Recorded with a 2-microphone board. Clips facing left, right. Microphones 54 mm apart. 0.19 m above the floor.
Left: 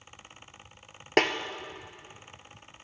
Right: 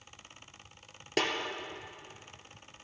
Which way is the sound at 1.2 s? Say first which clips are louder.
Left 7 dB; 50° left (ahead or behind).